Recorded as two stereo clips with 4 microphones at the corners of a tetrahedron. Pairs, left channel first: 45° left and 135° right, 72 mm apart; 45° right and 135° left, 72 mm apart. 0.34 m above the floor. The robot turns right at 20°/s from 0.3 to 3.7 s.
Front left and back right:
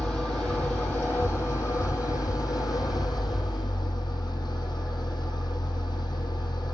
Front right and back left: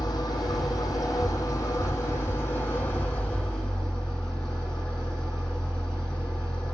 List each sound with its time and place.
0.0 s an engine running: 35° right, 6.5 m; by 6.7 s 35° left, 6.5 m